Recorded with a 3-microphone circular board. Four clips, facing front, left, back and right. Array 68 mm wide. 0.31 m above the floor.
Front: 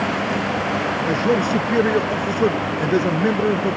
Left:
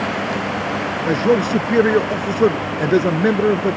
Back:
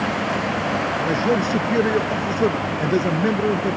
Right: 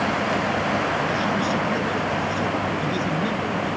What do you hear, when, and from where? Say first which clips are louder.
1.1 s a man speaking: left 6 dB, front 2 dB; 85° left